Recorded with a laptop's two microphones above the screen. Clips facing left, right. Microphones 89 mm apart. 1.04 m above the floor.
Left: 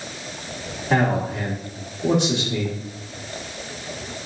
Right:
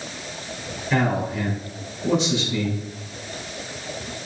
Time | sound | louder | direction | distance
0.9 | a man speaking | left 2 dB | 60° left (ahead or behind) | 2 m